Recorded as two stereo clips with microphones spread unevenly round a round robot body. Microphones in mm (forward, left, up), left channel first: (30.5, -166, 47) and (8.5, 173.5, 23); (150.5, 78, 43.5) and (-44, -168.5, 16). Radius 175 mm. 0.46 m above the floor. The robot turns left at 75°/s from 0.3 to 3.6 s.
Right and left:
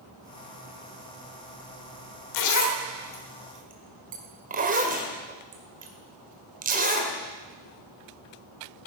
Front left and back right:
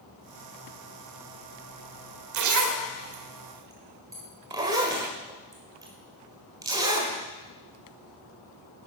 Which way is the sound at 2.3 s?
110° right.